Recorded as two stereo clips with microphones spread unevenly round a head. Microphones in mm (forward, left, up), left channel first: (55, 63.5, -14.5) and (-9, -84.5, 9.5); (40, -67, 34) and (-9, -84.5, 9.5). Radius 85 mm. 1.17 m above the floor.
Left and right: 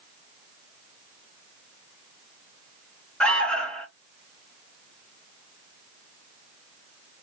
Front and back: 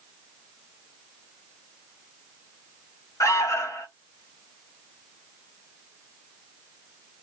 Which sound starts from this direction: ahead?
An alarm, at 3.2 s.